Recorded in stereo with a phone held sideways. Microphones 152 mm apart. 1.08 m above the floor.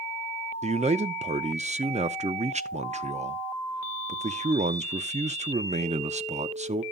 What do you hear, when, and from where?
0.6 s a man speaking: 50° right (ahead or behind), 0.6 m